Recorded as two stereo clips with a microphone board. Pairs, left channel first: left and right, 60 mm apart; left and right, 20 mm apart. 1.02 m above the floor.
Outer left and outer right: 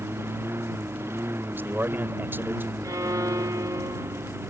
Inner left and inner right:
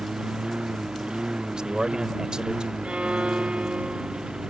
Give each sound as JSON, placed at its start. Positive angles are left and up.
{"t": 0.0, "sound": "a lawn mower", "side_deg": -40}
{"t": 1.5, "sound": "a man speaking", "side_deg": -40}
{"t": 2.8, "sound": "a violin", "side_deg": -75}